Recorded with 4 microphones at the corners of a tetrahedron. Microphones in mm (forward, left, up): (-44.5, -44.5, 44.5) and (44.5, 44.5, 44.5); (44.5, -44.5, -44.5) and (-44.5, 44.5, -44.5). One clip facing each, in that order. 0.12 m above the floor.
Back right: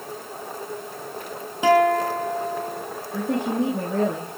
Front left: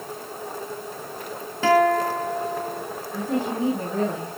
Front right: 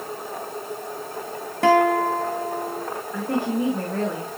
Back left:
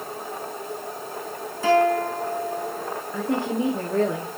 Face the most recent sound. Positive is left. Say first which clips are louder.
# back right 2 dB, front right 1 dB
turn(degrees=-145)